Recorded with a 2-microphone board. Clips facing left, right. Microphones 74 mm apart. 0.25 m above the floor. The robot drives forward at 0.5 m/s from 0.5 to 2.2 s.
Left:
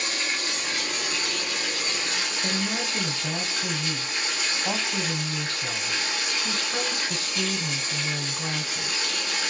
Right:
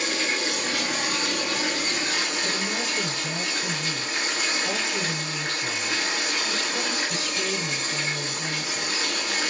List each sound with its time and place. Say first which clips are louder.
0.0 s running water: right 3 dB; 70° right (ahead or behind), 3.5 m; by 9.5 s 60° right (ahead or behind), 3.5 m
2.4 s a woman speaking: even; 35° left (ahead or behind), 1.7 m